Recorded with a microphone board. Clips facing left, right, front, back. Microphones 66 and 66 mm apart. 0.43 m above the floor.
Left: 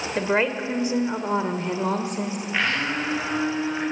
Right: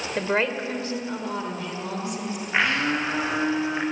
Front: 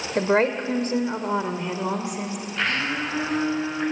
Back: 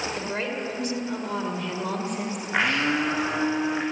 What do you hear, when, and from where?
0.1 s a woman speaking: 5° left, 1.9 m; by 2.4 s 90° left, 1.9 m
2.5 s a blender: 160° right, 6.5 m